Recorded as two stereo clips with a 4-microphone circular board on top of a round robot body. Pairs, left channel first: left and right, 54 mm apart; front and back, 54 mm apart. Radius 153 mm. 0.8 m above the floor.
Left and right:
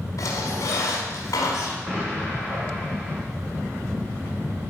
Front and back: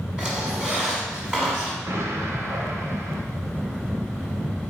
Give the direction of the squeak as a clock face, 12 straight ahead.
9 o'clock.